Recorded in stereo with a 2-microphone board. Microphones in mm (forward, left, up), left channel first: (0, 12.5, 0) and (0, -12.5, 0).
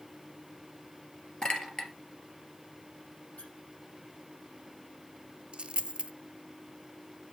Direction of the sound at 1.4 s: 35° left (ahead or behind).